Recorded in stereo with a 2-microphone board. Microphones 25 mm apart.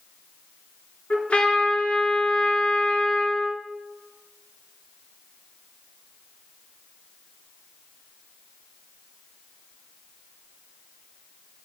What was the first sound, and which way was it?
A trumpet, 55° left (ahead or behind).